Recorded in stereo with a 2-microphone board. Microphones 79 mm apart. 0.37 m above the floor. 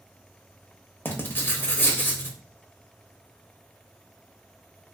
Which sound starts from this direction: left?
Writing, at 1.1 s.